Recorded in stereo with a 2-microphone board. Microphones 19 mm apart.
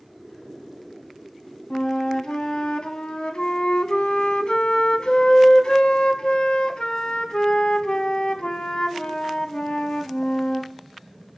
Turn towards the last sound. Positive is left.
turn(degrees=65)  # may be behind; listen again after turning